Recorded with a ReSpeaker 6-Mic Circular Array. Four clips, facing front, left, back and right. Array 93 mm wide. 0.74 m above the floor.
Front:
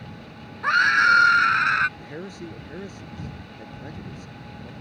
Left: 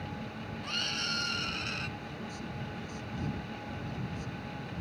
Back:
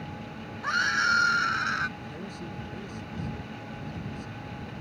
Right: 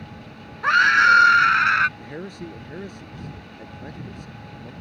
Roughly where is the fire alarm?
No fire alarm in this recording.